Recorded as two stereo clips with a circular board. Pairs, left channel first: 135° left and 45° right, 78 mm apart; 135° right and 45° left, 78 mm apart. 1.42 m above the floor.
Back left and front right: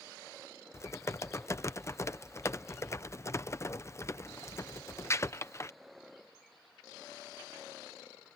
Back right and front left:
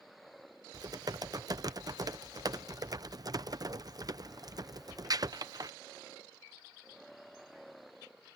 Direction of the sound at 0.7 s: 80° left.